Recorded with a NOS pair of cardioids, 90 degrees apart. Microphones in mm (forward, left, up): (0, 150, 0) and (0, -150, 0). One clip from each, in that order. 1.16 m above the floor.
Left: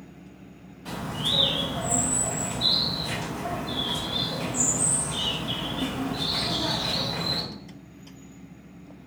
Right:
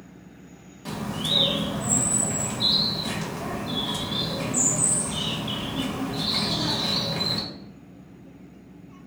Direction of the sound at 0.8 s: 65° right.